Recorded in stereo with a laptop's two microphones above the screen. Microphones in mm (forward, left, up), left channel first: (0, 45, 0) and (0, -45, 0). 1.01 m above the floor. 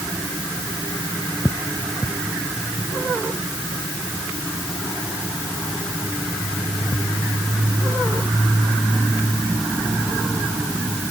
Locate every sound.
Only background noise.